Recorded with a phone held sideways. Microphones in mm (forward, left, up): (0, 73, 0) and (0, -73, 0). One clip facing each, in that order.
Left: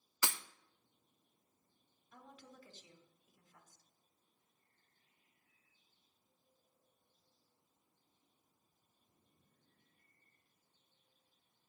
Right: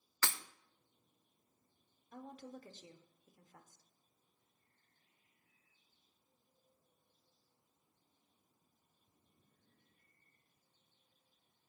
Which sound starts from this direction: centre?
Breaking glass, at 0.2 s.